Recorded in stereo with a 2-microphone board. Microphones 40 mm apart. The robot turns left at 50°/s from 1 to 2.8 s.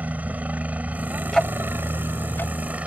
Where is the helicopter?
45° right (ahead or behind); by 2.9 s 40° right (ahead or behind).